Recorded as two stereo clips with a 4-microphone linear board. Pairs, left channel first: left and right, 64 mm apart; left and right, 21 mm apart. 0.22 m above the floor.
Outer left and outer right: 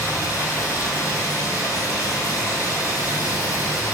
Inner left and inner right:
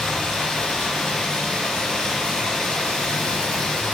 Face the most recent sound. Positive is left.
turn(degrees=65)  # may be behind; listen again after turning